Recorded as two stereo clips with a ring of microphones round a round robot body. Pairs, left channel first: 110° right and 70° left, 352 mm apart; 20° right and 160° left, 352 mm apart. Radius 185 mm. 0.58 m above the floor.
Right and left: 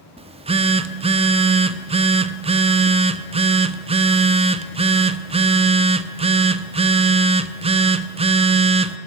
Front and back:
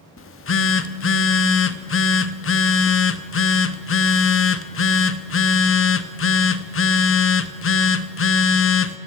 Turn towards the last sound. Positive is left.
turn(degrees=5)